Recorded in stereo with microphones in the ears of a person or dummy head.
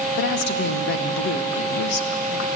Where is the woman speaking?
65° left (ahead or behind), 1.5 m.